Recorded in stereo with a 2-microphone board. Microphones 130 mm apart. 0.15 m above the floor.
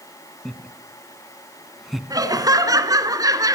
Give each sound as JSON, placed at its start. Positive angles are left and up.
{"t": 0.5, "sound": "laughter", "side_deg": 0, "distance_m": 1.5}
{"t": 2.1, "sound": "laughter", "side_deg": -30, "distance_m": 1.9}